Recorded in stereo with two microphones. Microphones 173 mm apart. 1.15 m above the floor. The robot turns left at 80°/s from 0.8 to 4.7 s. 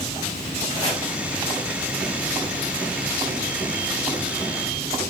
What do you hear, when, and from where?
0.7 s chopping: 35° left (ahead or behind), 6.5 m; by 1.0 s 15° left (ahead or behind), 6.5 m